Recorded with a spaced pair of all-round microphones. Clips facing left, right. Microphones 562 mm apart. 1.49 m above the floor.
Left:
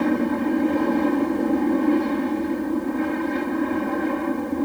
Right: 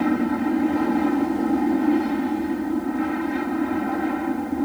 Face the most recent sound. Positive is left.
turn(degrees=-5)  # may be behind; listen again after turning